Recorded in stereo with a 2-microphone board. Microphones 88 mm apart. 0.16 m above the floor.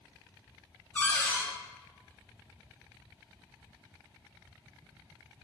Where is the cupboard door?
20° left (ahead or behind), 0.7 m.